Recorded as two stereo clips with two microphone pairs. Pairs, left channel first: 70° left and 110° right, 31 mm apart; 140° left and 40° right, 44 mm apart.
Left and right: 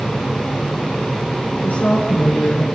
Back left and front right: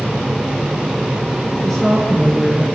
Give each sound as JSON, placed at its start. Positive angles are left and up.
{"t": 1.6, "sound": "a woman speaking", "azimuth_deg": 60, "distance_m": 5.0}